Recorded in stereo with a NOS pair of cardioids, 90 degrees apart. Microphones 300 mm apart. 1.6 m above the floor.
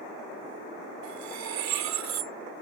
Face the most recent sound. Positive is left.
turn(degrees=-70)